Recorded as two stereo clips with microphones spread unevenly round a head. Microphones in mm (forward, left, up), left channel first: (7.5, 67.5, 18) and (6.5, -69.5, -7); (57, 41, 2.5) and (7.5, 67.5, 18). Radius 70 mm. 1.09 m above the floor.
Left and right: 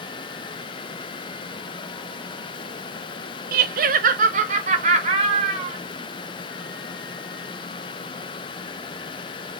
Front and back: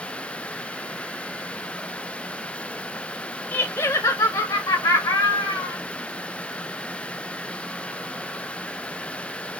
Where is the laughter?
90° right, 0.7 m; by 5.8 s 45° right, 1.8 m.